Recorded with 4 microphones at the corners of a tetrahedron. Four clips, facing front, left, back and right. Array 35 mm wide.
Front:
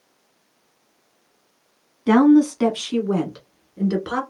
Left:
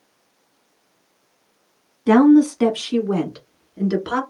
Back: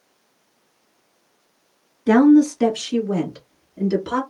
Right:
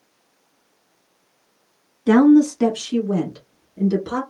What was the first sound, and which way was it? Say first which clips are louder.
A woman speaking: even, back 1 dB; 20° left.